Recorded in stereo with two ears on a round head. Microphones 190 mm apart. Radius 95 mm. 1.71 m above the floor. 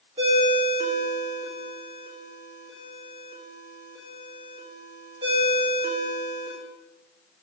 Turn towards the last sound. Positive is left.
turn(degrees=-30)  # may be behind; listen again after turning